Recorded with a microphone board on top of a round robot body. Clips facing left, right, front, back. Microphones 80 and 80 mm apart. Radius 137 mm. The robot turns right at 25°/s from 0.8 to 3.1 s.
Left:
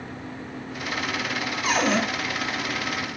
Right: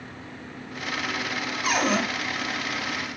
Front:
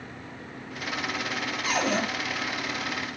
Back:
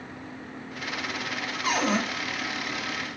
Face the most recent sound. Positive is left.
turn(degrees=-140)